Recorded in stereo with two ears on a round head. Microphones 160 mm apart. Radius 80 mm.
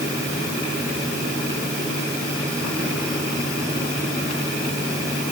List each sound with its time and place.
Only background noise.